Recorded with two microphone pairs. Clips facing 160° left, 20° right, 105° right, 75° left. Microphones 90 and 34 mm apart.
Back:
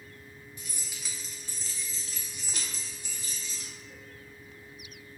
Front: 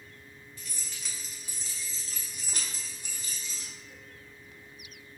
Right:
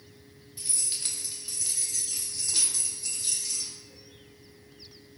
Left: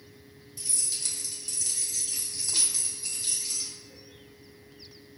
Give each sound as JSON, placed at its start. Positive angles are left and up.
{"t": 0.6, "sound": "keys jangling", "azimuth_deg": -140, "distance_m": 0.8}